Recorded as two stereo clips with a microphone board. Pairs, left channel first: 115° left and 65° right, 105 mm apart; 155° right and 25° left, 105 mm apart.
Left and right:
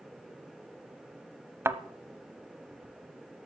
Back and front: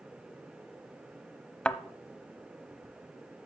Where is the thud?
90° right, 0.6 m.